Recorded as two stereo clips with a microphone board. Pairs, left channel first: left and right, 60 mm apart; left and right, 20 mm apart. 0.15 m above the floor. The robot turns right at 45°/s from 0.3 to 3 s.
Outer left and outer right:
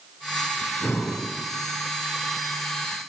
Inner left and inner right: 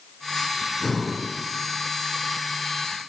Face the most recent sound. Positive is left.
turn(degrees=150)